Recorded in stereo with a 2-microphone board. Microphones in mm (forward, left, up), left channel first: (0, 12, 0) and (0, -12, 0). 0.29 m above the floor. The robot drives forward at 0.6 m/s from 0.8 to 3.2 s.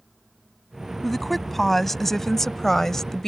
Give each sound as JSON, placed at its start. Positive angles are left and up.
{"t": 1.0, "sound": "a woman speaking", "side_deg": 10}